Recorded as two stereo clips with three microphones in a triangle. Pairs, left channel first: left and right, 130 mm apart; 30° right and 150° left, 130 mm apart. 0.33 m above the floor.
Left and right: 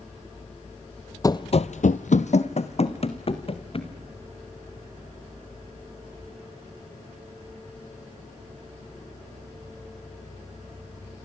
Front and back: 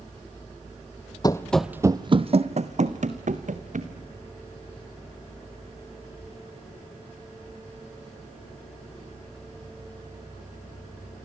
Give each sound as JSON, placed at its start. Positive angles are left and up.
{"t": 1.2, "sound": "running footsteps", "azimuth_deg": 25, "distance_m": 0.8}